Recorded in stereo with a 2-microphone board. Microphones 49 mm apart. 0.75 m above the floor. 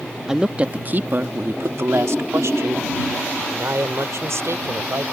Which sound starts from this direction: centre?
A woman speaking, at 0.3 s.